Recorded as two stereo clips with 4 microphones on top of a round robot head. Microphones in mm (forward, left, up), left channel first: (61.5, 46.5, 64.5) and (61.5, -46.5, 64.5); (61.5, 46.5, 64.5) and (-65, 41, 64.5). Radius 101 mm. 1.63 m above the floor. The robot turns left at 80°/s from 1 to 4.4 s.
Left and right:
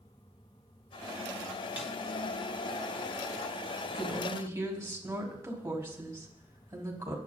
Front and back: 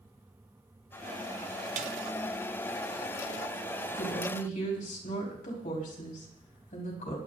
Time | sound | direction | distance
1.8 | a snare drum | 170° right | 0.6 m
3.9 | a woman speaking | 15° left | 5 m